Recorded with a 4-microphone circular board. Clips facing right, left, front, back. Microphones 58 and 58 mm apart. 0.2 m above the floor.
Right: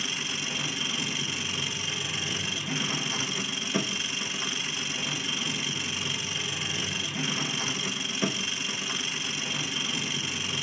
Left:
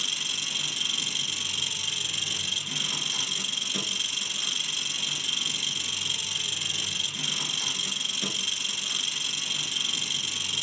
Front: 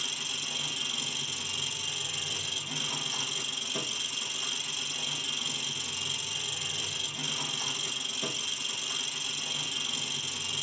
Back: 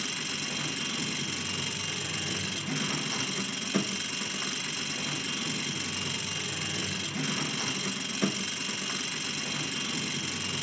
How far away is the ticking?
No ticking in this recording.